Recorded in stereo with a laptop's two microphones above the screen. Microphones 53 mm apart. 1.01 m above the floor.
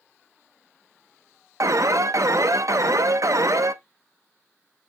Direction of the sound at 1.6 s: 70° right (ahead or behind).